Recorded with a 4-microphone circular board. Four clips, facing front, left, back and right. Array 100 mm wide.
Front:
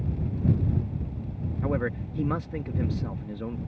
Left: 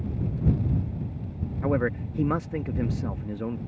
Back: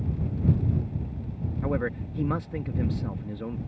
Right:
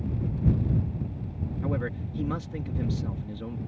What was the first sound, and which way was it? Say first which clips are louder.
A man speaking: left 7 dB, even; 85° left.